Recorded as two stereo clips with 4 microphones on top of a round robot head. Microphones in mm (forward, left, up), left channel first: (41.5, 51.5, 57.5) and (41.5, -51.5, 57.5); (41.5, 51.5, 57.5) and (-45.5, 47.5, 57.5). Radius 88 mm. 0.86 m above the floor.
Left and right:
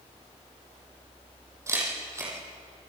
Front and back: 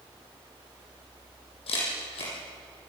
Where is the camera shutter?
30° right, 9 m.